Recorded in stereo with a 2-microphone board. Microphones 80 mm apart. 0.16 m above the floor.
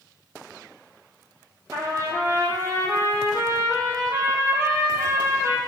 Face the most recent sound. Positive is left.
turn(degrees=-40)  # may be behind; listen again after turning